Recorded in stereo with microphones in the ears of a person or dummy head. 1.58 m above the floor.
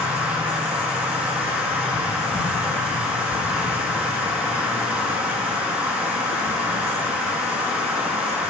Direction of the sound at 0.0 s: 5° right (ahead or behind).